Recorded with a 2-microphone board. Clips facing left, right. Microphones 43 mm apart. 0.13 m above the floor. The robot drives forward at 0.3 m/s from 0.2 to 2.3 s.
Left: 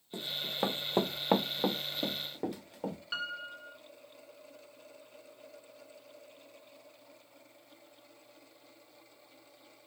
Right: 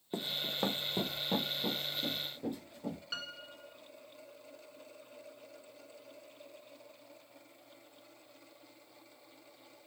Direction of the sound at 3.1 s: 15° left (ahead or behind).